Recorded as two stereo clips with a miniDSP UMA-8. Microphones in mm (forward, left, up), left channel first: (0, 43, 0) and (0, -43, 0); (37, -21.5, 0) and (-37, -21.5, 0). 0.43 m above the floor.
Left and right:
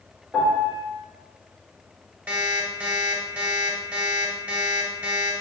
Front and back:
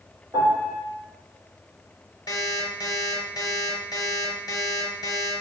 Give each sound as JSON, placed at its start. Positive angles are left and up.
{"t": 0.3, "sound": "a piano", "azimuth_deg": -175, "distance_m": 1.6}
{"t": 2.3, "sound": "an alarm clock", "azimuth_deg": -20, "distance_m": 0.9}